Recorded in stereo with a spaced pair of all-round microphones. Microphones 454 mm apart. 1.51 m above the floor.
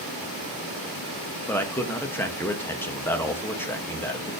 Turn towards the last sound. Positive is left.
turn(degrees=5)  # may be behind; listen again after turning